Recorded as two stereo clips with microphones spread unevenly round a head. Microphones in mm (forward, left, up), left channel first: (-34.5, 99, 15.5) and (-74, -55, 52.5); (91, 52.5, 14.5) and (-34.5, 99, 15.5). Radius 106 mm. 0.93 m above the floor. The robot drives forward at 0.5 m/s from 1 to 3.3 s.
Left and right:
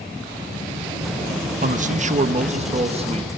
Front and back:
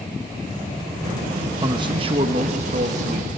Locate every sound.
1.6 s a man speaking: 140° right, 1.0 m; by 3.3 s 160° right, 1.6 m